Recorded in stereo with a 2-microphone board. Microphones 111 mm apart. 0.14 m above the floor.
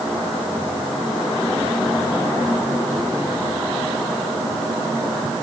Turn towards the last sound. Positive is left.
No sound to turn to.